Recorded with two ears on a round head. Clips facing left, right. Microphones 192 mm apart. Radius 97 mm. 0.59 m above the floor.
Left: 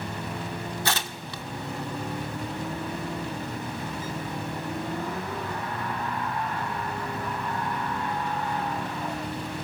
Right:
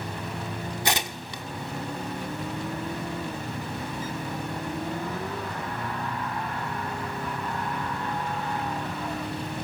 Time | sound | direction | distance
0.8 | tearing paper | 15° right (ahead or behind) | 0.7 m